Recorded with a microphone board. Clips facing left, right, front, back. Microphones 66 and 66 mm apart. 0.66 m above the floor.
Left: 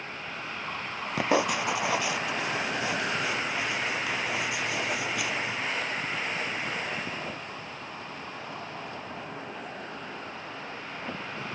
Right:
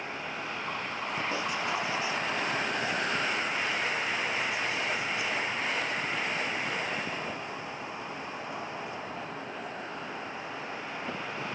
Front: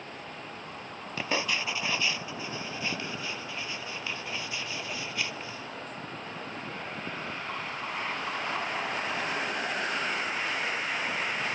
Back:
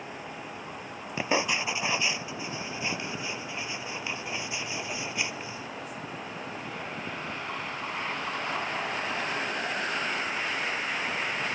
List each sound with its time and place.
1.2 s writing: 110° left